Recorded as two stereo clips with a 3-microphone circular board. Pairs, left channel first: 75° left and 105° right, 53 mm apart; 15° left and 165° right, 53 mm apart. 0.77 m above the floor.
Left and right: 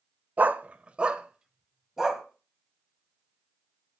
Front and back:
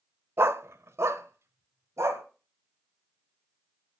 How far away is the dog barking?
About 0.7 m.